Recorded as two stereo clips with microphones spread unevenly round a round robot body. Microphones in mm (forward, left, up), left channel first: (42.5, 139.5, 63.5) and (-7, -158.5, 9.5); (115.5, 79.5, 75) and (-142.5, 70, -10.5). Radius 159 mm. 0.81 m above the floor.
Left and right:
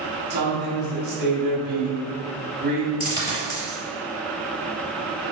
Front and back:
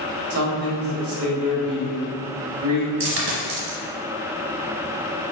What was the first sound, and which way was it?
A man speaking, 155° right.